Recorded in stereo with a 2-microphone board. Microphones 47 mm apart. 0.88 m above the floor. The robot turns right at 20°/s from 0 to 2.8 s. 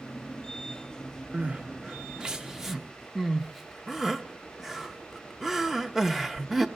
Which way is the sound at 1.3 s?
30° right (ahead or behind).